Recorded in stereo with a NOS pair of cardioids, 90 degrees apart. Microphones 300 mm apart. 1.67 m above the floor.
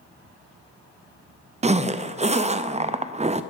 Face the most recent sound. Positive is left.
turn(degrees=-25)